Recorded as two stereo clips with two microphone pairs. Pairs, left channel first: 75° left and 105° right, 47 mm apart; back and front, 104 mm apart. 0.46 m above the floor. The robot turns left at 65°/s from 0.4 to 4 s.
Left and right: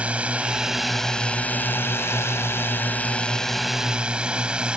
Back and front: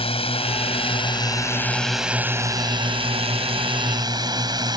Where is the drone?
170° right; by 4.8 s 40° right.